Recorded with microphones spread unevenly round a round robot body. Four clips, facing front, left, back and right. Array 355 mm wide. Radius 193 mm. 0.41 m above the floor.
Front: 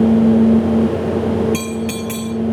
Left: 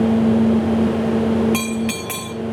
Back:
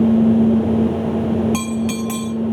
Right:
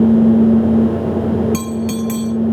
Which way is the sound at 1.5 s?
165° left.